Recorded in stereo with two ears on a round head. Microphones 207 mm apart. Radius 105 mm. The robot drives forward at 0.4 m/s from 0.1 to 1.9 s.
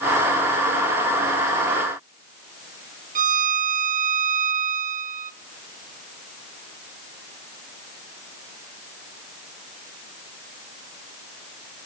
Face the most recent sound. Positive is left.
turn(degrees=-35)  # may be behind; listen again after turning